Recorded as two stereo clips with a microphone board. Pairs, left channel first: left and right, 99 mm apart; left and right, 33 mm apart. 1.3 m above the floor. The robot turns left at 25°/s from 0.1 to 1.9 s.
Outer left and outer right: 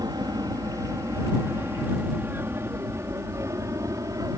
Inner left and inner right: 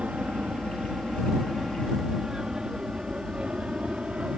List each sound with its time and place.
0.0 s an aircraft: 40° right (ahead or behind); by 4.4 s 35° right (ahead or behind)